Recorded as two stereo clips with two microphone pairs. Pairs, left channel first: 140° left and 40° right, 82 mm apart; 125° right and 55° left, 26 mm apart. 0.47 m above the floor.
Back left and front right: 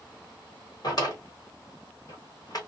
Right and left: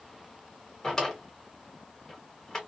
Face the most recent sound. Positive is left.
turn(degrees=175)